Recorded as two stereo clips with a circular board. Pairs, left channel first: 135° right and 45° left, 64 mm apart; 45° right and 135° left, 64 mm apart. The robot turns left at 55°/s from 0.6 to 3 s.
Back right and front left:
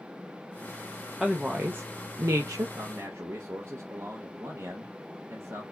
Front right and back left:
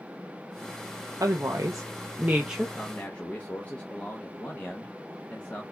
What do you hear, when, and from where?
1.2 s a woman speaking: 130° left, 0.6 m; by 2.7 s 50° left, 0.6 m
2.8 s a man speaking: 30° left, 0.7 m; by 5.6 s 20° left, 0.7 m